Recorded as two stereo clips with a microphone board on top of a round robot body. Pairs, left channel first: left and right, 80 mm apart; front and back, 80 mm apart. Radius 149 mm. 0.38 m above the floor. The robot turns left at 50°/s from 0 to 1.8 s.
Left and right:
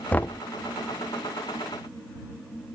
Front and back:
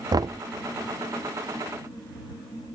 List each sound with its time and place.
0.1 s knocking: 160° left; by 0.4 s 145° left